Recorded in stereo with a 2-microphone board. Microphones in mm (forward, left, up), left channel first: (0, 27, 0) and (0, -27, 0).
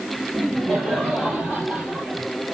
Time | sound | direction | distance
0.3 | laughter | centre (ahead or behind) | 3.5 m